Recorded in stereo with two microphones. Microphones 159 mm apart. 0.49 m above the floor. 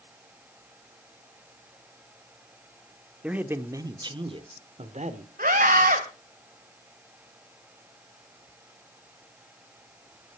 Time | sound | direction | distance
3.2 | a man speaking | 10° right (ahead or behind) | 1.0 m
5.4 | a scream | 70° right (ahead or behind) | 2 m